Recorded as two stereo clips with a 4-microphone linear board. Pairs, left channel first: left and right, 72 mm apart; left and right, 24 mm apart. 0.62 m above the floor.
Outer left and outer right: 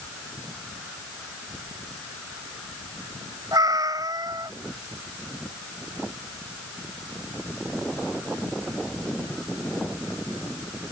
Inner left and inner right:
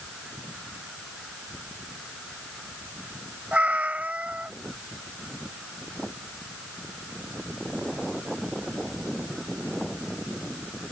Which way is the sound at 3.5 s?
65° right (ahead or behind).